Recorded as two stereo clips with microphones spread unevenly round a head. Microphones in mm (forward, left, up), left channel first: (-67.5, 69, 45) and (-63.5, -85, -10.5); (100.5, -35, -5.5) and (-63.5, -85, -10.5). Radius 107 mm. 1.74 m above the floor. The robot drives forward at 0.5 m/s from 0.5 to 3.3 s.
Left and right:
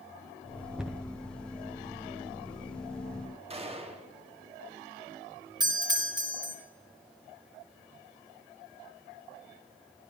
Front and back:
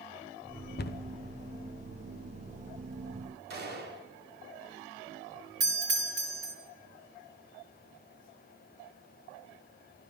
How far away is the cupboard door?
About 0.6 m.